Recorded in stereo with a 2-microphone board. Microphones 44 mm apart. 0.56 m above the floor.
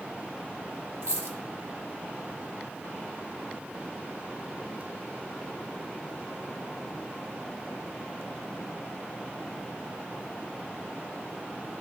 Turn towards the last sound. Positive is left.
turn(degrees=-80)